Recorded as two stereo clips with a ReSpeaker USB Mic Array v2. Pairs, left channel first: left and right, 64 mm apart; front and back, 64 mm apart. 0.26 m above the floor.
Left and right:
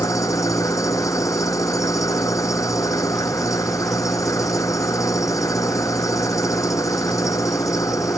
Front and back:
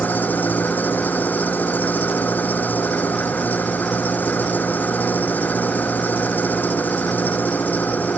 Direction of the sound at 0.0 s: 60° left.